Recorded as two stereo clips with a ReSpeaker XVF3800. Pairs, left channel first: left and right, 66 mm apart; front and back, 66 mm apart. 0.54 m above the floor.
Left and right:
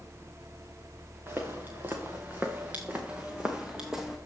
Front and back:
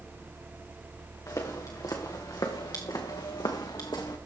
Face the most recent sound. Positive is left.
turn(degrees=-5)